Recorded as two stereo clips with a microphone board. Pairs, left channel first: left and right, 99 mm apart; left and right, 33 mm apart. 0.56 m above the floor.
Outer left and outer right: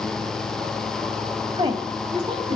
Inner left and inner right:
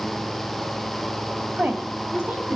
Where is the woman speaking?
65° right (ahead or behind), 2.5 m; by 2.6 s 70° right (ahead or behind), 4 m.